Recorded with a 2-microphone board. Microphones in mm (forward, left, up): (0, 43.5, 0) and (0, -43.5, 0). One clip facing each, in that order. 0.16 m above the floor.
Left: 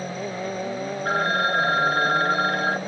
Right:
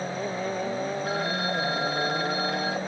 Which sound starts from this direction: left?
A phone ringing, at 1.1 s.